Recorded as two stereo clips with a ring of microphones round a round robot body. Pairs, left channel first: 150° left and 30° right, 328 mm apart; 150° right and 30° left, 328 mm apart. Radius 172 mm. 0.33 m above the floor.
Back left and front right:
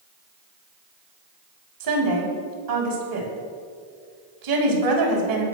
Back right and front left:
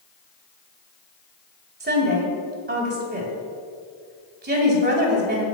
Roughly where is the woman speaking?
Ahead right.